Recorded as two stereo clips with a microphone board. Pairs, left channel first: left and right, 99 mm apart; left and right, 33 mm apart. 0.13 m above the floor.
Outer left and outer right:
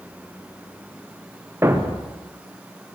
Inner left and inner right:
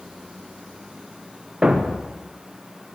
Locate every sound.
1.6 s a thud: 25° right (ahead or behind), 3.5 m